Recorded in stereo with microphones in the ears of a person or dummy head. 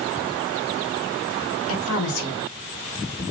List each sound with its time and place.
1.7 s a woman speaking: 80° left, 1.5 m; by 3.2 s 45° left (ahead or behind), 2.5 m